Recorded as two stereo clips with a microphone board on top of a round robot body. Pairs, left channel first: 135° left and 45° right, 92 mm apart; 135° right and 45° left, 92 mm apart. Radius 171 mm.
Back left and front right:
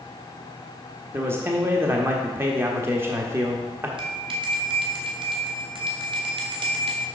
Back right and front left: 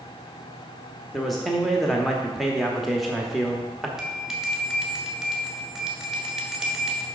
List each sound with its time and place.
1.1 s a man speaking: 45° right, 1.1 m
4.0 s a bell: 40° right, 1.6 m